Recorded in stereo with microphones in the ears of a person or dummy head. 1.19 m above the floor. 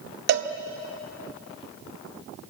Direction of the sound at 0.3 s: 65° right (ahead or behind).